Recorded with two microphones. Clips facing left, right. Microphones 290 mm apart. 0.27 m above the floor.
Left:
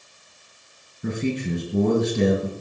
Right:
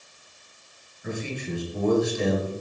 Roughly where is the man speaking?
Left.